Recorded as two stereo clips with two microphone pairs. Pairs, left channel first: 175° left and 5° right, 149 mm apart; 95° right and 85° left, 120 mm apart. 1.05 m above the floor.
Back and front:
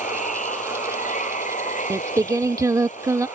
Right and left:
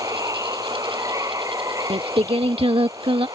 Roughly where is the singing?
Ahead left.